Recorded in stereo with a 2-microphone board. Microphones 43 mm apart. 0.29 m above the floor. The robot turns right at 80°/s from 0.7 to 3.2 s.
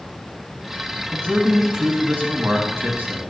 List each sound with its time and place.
1.1 s a man speaking: 140° left, 1.9 m; by 3.2 s 55° right, 1.9 m